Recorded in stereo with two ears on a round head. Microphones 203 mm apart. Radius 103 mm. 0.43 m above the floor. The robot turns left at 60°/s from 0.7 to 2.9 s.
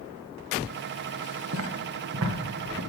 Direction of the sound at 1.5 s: 70° right (ahead or behind).